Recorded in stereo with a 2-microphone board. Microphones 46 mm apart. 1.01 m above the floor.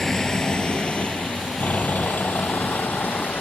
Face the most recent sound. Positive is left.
turn(degrees=45)  # may be behind; listen again after turning